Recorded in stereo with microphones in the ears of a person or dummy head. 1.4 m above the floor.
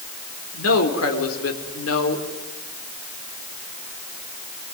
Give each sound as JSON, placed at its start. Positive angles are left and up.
{"t": 0.5, "sound": "a man speaking", "side_deg": 85, "distance_m": 4.0}